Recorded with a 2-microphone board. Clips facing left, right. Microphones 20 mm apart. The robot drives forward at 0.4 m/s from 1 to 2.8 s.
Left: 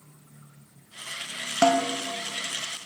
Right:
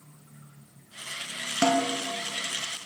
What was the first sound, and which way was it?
A snare drum, 40° left (ahead or behind).